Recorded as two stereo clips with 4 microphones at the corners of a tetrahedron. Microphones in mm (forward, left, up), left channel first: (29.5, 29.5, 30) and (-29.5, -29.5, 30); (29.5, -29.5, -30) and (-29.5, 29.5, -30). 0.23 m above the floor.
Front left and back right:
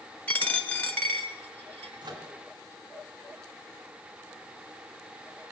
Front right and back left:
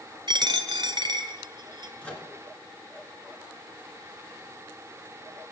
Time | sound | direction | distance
0.3 | a dropped coin | 115° left | 1.3 m
2.0 | a microwave | 120° right | 2.5 m